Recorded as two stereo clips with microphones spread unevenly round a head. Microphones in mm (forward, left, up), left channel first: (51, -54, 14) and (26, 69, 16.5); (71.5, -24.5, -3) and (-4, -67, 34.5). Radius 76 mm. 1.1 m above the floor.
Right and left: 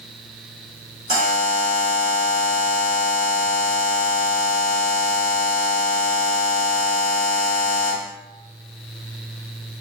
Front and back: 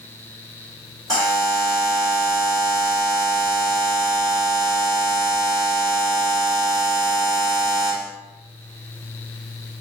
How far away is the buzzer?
About 1.8 m.